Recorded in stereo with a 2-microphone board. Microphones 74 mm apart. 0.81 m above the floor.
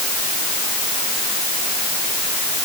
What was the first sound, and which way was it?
Only background noise.